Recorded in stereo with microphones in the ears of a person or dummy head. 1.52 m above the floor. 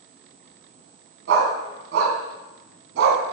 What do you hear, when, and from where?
1.3 s a dog barking: 65° right (ahead or behind), 3 m